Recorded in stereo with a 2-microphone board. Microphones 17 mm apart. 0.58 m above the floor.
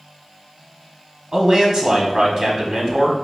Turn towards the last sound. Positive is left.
turn(degrees=-40)  # may be behind; listen again after turning